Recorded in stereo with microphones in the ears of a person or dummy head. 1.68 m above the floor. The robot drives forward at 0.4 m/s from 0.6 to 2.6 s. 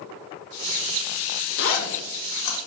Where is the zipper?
75° left (ahead or behind), 2.5 m; by 2.6 s 70° left (ahead or behind), 2.5 m.